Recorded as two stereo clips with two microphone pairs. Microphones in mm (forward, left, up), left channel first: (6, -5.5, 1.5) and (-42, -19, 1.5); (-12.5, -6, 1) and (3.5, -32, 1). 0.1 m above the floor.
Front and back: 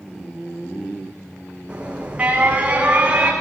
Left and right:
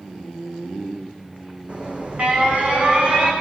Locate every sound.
1.7 s an alarm: 100° right, 8 m